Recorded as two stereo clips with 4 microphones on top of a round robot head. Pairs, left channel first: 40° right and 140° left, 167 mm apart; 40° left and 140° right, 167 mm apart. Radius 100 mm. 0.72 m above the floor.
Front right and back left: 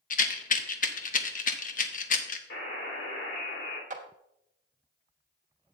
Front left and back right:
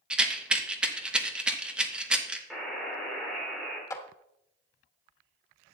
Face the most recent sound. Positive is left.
turn(degrees=110)